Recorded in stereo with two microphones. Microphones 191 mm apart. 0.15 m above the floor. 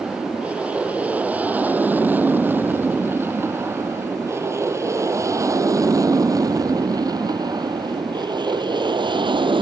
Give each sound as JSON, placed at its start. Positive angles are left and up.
{"t": 0.0, "sound": "an aircraft", "side_deg": -5}